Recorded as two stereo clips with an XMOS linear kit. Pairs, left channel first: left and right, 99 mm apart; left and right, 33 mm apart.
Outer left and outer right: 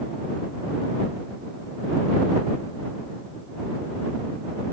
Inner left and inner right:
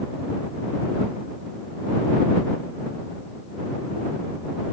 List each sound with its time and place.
Only background noise.